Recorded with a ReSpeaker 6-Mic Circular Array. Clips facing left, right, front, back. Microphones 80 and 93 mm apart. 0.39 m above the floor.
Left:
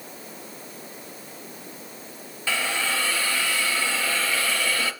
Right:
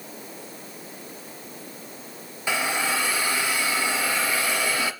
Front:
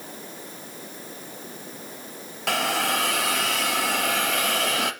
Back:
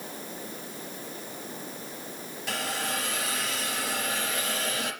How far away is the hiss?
About 1.1 m.